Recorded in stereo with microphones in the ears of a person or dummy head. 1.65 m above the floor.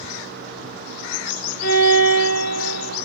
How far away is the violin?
About 1.7 m.